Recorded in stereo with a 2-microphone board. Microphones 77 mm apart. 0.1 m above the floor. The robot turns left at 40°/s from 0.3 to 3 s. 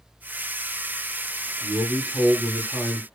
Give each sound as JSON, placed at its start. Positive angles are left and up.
{"t": 1.6, "sound": "a man speaking", "azimuth_deg": 120, "distance_m": 2.0}